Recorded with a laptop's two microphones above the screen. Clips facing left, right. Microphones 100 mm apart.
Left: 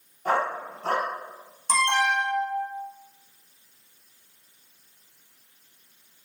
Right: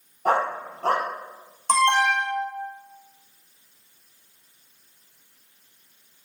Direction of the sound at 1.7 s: 55° right (ahead or behind).